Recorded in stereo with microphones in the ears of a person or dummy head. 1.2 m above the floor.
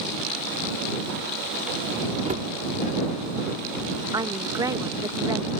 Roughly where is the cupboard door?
Right.